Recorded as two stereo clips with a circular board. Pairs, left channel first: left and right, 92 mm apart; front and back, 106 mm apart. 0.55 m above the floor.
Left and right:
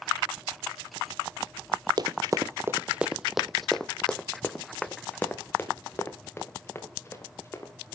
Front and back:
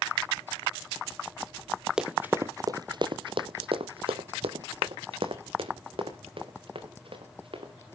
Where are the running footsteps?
100° right, 0.7 m; by 7.7 s 150° left, 3 m.